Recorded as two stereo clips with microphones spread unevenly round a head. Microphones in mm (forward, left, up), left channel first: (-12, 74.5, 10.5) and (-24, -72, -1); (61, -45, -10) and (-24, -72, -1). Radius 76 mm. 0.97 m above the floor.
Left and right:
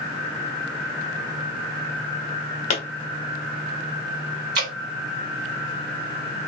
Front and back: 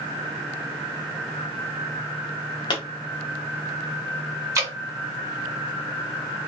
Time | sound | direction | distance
2.7 | a pop | 55° left | 0.9 m
4.5 | dripping | 110° right | 2 m